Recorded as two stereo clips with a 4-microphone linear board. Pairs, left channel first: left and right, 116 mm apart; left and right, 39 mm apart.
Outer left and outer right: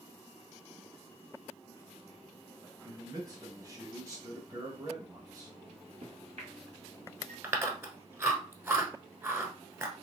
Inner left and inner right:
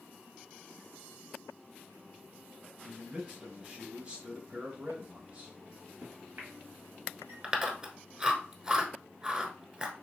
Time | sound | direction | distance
2.9 | a man speaking | 30° right (ahead or behind) | 1.3 m
5.7 | a microwave | 65° right (ahead or behind) | 1.8 m
7.4 | chewing | 20° right (ahead or behind) | 1.0 m